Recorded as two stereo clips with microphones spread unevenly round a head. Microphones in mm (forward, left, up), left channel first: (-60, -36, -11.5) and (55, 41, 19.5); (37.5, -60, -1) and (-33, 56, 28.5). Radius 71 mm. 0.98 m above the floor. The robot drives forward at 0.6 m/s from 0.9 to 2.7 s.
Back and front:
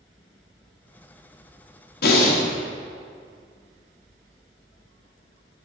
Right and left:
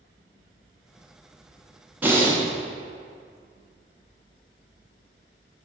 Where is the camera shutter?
I don't hear a camera shutter.